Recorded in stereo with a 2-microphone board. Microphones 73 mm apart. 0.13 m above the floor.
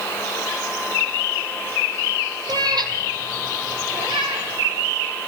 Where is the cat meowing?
70° right (ahead or behind), 1.4 m; by 4.5 s 80° right, 4 m.